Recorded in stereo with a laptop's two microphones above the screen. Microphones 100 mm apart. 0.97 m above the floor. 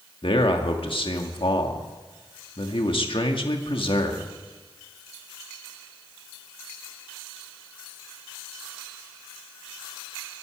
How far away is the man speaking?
About 1.7 m.